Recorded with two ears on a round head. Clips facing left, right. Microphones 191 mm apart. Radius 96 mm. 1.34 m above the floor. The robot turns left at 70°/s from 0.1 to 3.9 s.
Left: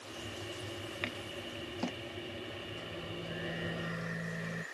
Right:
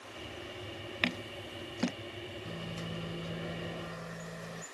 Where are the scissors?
65° right (ahead or behind); by 1.9 s 15° right (ahead or behind).